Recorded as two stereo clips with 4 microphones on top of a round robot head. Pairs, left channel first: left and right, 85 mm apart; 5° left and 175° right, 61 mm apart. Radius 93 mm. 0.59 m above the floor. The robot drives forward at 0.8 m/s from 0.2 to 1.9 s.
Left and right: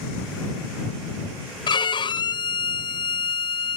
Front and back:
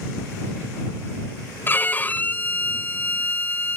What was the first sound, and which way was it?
A violin, 65° left.